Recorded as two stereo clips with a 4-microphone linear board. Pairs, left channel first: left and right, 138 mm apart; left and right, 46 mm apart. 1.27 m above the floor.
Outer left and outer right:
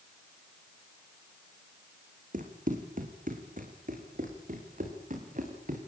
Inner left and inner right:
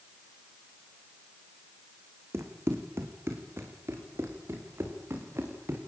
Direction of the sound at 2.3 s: 75° right (ahead or behind).